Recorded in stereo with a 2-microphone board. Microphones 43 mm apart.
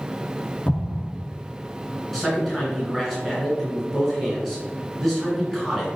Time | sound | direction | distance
0.7 | an explosion | 40° left (ahead or behind) | 0.9 m
2.1 | a man speaking | centre (ahead or behind) | 1.4 m